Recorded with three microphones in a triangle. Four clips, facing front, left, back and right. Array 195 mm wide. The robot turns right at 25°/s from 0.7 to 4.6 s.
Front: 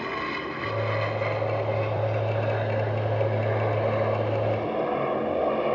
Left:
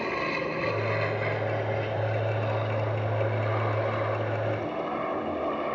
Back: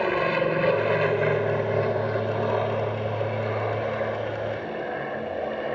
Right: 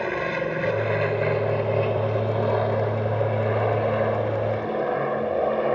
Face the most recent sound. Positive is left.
turn(degrees=-75)